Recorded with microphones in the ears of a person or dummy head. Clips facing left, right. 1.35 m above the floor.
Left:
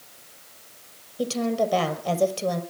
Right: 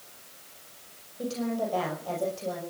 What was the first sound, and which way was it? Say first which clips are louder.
A woman speaking: left 6 dB; 85° left.